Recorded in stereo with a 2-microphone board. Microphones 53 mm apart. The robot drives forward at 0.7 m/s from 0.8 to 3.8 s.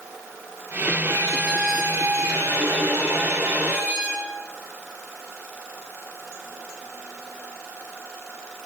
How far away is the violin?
About 3.5 m.